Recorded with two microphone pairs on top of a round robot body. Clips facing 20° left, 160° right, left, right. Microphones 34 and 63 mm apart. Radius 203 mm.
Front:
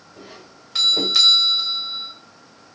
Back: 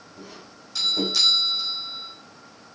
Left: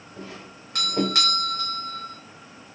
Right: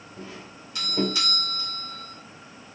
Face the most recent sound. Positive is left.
turn(degrees=60)